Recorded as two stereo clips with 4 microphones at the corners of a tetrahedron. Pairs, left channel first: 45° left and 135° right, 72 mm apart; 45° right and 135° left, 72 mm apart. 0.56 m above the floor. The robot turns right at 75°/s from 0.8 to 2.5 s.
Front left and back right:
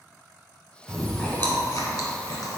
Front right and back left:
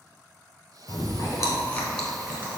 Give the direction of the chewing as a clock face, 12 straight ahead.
2 o'clock.